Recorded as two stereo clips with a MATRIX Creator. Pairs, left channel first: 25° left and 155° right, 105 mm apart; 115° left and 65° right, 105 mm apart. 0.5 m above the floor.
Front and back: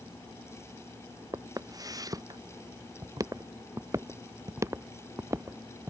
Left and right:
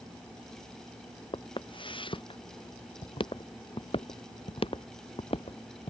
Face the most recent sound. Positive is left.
turn(degrees=135)